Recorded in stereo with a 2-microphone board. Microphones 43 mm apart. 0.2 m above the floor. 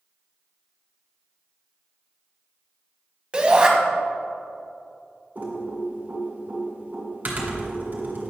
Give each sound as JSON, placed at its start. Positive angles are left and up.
{"t": 3.3, "sound": "a shout", "side_deg": -25, "distance_m": 1.0}
{"t": 5.3, "sound": "typing on a keyboard", "side_deg": -45, "distance_m": 2.0}